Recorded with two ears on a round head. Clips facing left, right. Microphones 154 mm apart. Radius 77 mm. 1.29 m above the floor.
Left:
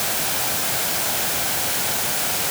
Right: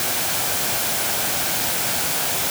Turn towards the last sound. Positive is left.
No sound to turn to.